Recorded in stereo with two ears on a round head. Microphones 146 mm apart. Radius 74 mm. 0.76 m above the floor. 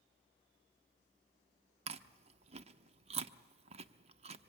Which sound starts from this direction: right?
Chewing, at 1.9 s.